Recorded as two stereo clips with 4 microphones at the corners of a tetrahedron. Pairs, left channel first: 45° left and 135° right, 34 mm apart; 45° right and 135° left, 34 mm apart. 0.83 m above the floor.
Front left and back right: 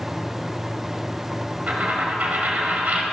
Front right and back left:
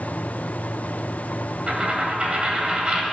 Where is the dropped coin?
170° right, 1.6 m.